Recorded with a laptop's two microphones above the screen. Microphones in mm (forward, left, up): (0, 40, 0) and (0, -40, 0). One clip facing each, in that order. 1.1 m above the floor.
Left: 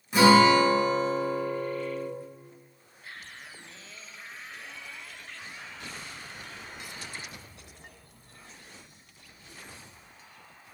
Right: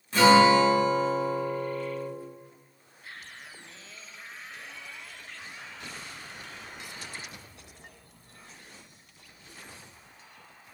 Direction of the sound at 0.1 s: 15° left (ahead or behind).